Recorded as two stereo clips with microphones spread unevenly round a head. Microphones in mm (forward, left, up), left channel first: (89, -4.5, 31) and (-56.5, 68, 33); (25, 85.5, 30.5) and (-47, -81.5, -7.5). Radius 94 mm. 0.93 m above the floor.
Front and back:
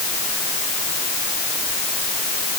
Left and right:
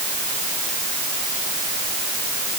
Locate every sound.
Only background noise.